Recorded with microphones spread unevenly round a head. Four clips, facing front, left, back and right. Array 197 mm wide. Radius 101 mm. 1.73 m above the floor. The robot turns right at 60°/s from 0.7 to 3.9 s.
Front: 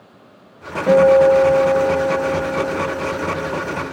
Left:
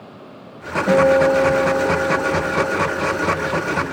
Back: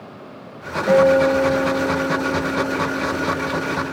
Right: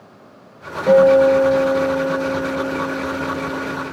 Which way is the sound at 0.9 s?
40° right.